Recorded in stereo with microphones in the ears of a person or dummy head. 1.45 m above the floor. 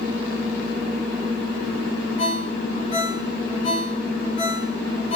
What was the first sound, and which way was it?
A ringtone, 45° left (ahead or behind).